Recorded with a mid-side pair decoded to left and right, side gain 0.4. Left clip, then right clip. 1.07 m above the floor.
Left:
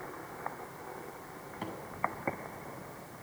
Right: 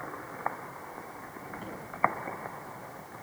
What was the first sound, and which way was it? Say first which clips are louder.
A microwave: left 6 dB; 50° left.